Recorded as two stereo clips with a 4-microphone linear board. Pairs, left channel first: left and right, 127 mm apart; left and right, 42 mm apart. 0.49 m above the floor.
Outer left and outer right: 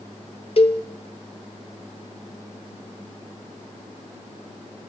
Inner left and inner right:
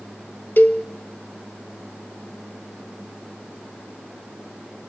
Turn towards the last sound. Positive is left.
turn(degrees=50)  # may be behind; listen again after turning